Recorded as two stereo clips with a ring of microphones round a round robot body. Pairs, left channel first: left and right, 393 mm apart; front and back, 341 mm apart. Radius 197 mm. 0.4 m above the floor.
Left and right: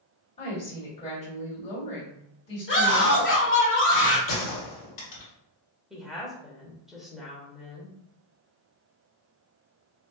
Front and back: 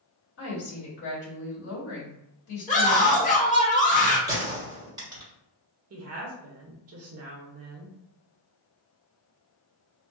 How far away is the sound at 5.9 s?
About 1.1 m.